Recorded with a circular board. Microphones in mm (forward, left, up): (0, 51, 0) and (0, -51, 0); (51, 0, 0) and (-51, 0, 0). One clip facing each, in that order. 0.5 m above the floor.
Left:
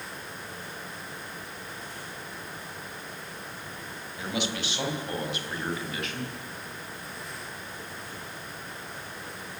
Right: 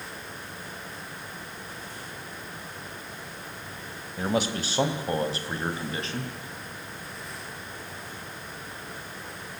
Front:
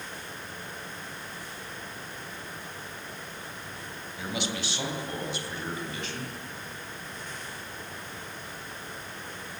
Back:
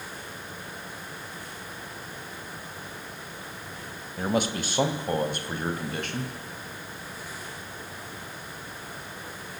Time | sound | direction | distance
4.2 | a man speaking | 135° right | 2.5 m